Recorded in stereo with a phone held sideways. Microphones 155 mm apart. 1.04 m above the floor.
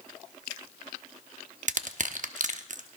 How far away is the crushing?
About 0.9 m.